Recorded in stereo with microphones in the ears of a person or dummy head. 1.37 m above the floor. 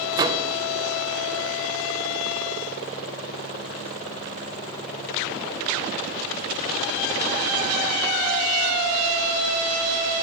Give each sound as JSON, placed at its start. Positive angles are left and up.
{"t": 0.1, "sound": "a microwave", "side_deg": -25, "distance_m": 0.6}